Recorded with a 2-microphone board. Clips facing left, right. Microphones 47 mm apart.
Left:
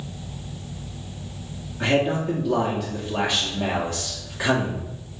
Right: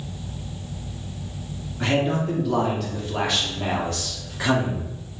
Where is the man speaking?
5° left (ahead or behind), 1.0 m.